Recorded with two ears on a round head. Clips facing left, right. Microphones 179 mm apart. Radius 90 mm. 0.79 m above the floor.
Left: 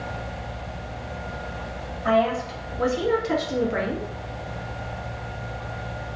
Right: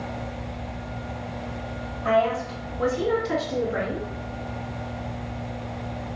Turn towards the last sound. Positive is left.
turn(degrees=55)  # may be behind; listen again after turning